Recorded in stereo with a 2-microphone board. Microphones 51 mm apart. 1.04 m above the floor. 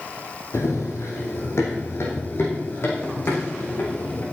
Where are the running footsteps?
70° left (ahead or behind), 3 m; by 4.2 s 45° left (ahead or behind), 5 m.